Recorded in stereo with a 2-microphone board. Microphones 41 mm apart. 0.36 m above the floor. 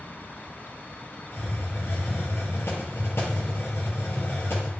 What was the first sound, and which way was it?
A hiss, 80° left.